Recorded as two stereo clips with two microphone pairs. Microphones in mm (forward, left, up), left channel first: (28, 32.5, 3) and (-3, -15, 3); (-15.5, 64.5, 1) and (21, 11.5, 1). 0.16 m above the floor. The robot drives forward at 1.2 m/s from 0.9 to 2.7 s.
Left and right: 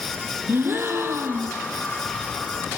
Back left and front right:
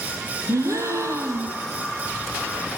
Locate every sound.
0.5 s a gasp: 85° right, 4 m; by 1.6 s 100° right, 4 m